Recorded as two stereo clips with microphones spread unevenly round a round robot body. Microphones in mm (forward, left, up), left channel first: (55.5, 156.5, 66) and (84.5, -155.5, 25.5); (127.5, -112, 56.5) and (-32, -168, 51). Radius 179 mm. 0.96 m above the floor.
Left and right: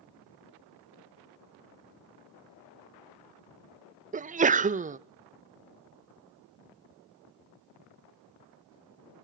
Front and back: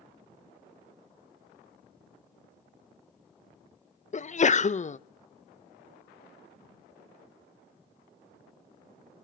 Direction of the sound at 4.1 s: 25° right.